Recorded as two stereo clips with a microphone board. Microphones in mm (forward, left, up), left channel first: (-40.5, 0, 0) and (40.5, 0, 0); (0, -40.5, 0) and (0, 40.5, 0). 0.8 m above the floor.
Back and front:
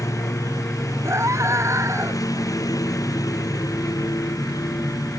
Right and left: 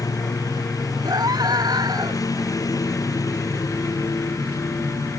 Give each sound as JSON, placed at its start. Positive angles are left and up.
{"t": 0.0, "sound": "a lawn mower", "azimuth_deg": -135}
{"t": 1.1, "sound": "a scream", "azimuth_deg": 55}